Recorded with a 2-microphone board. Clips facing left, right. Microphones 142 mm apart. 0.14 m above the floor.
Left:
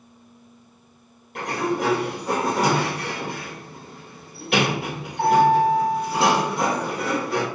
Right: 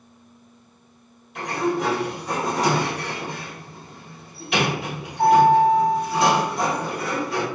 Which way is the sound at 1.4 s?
65° left (ahead or behind).